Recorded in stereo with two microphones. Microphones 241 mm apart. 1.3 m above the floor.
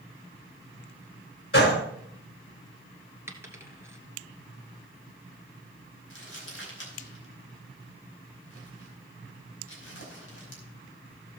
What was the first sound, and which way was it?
A gunshot, 65° left (ahead or behind).